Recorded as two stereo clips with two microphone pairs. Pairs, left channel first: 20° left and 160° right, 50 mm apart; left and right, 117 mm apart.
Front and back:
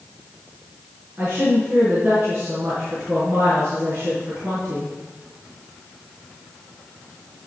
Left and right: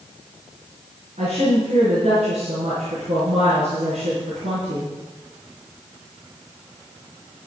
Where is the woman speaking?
110° right, 5 m.